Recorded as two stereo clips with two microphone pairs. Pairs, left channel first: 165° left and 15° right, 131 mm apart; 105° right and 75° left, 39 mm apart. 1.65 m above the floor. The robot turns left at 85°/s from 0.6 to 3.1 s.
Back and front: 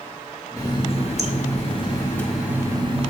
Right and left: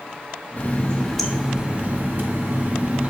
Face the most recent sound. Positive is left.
turn(degrees=10)